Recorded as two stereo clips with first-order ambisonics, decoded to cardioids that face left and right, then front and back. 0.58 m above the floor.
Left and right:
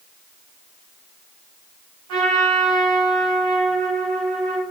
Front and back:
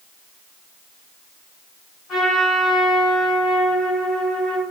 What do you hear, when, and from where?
2.1 s a trumpet: 70° right, 1.2 m